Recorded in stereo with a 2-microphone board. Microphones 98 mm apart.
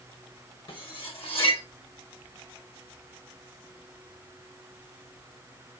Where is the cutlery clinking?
60° left (ahead or behind), 1.2 m.